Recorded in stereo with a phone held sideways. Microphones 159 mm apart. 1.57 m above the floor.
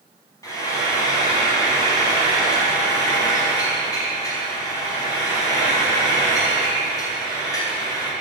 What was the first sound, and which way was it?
Frying, 20° left (ahead or behind).